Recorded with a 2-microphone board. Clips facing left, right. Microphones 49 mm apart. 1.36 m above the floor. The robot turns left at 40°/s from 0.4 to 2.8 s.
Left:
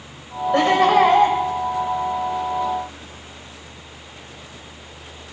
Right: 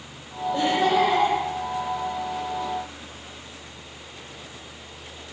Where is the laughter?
90° left, 7.5 m; by 1.4 s 55° left, 7.5 m.